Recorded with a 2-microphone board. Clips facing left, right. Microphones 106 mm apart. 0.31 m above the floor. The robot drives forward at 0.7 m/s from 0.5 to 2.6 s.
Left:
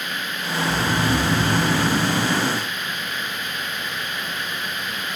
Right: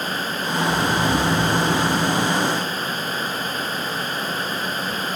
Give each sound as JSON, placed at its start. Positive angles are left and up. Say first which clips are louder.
{"t": 0.6, "sound": "snoring", "louder": "right 1 dB", "side_deg": -20, "distance_m": 2.5}